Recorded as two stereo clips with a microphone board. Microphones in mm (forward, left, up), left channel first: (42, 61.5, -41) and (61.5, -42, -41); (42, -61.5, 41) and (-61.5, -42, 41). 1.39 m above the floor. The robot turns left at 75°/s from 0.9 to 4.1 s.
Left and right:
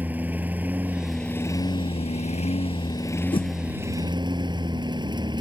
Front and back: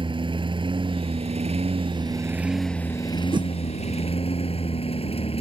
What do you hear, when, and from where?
0.0 s a lawn mower: 155° right; by 5.4 s 35° right
3.3 s a whoosh: 135° left; by 3.5 s 120° left